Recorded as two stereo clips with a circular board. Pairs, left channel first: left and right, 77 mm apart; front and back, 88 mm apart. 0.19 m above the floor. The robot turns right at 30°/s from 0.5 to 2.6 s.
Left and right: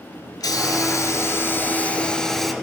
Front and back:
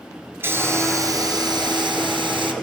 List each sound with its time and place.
0.4 s a hiss: 120° left, 1.1 m; by 2.5 s straight behind, 1.1 m